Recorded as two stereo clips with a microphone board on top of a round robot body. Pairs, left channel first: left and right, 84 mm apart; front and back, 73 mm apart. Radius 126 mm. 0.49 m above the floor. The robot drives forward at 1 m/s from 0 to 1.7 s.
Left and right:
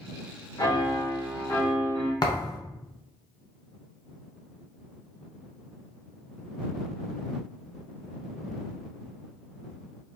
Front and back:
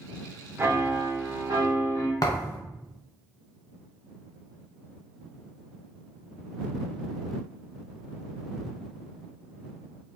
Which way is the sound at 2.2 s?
45° left.